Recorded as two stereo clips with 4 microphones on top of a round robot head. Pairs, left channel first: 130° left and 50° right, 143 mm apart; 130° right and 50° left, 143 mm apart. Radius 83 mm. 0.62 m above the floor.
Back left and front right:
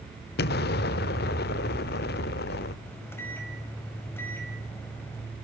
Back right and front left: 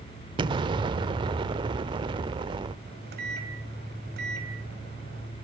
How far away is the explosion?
About 0.7 m.